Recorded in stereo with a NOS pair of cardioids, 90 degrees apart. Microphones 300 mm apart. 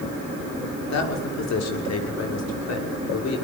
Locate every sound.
0.9 s a man speaking: 60° left, 6 m